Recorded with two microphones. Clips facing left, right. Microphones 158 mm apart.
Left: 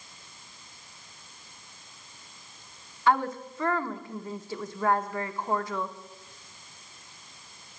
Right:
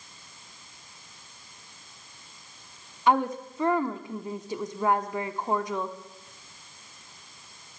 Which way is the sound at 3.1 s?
20° right (ahead or behind).